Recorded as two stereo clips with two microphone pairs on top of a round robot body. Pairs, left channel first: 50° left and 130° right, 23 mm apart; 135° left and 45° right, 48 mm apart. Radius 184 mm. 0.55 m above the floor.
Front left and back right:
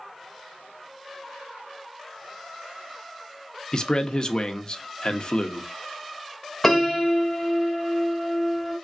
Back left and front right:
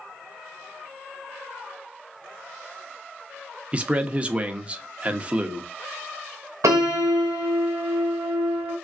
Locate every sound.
3.7 s a man speaking: 15° left, 0.9 m
6.6 s a piano: 30° right, 0.6 m